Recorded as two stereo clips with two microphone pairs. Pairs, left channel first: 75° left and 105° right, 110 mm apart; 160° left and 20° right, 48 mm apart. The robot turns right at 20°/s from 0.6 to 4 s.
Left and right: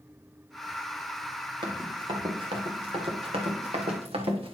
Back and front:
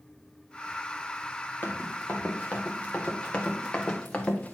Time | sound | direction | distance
1.6 | running footsteps | 150° right | 2.5 m